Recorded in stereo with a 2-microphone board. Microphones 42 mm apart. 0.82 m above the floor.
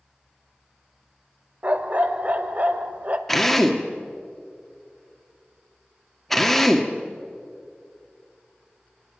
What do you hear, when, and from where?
1.6 s a dog barking: 40° right (ahead or behind), 1.0 m
3.3 s a drill: 5° left (ahead or behind), 1.4 m